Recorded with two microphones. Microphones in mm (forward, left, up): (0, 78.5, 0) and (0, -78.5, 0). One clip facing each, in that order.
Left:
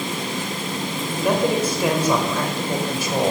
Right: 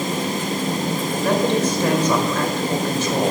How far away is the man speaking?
About 1.8 m.